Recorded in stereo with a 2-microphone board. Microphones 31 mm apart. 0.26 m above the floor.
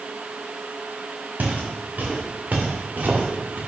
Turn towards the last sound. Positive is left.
turn(degrees=-60)  # may be behind; listen again after turning